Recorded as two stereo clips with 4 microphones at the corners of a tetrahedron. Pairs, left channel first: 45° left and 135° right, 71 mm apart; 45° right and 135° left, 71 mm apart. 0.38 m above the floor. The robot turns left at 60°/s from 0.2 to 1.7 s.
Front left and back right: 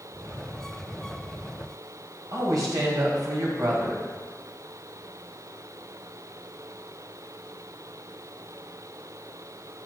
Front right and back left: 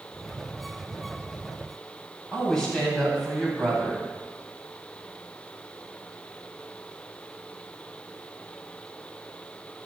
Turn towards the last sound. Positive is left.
turn(degrees=-120)